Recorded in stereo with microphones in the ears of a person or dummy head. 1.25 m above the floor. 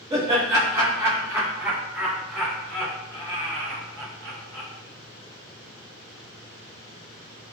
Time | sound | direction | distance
0.1 | laughter | 20° right (ahead or behind) | 1.4 m